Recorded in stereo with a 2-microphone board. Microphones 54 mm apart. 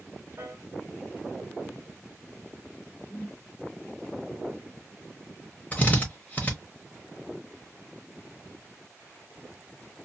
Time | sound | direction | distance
0.4 | a piano | 40° right (ahead or behind) | 1.7 m
3.1 | a whoosh | 15° left (ahead or behind) | 1.1 m
5.7 | a drill | 30° left (ahead or behind) | 0.9 m